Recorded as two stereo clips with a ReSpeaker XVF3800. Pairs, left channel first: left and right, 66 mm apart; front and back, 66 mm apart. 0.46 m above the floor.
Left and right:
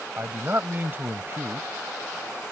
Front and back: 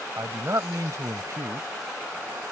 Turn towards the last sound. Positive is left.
turn(degrees=-145)